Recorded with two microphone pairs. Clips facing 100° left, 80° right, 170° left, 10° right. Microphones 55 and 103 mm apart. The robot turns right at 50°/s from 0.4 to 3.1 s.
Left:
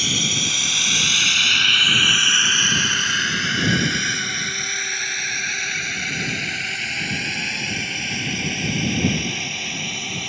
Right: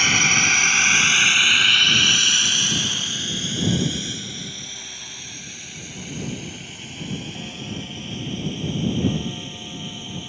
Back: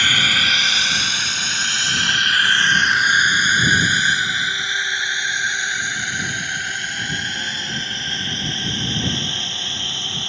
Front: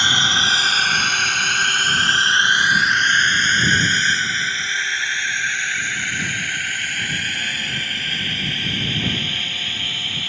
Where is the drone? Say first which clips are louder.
Right 6 dB, front 1 dB; 70° right; by 10.3 s 105° left.